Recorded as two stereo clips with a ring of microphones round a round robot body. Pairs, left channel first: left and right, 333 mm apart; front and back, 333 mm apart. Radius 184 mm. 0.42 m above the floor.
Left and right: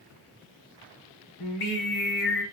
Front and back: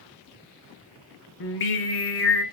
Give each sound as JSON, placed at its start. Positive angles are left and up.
{"t": 1.4, "sound": "singing", "azimuth_deg": 55, "distance_m": 0.6}